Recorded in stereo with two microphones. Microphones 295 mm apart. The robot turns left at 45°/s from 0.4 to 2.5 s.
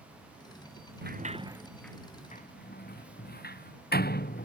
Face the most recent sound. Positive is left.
turn(degrees=30)  # may be behind; listen again after turning